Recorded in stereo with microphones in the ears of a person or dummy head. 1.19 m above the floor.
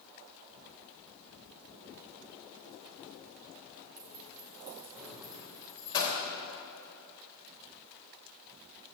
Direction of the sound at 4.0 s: 40° right (ahead or behind).